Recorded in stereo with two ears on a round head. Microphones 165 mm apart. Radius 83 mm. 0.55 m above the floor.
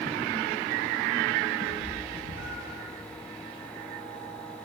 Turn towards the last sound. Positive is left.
turn(degrees=45)  # may be behind; listen again after turning